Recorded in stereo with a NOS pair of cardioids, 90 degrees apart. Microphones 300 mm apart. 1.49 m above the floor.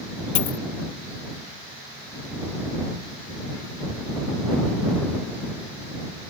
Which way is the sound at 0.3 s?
65° left.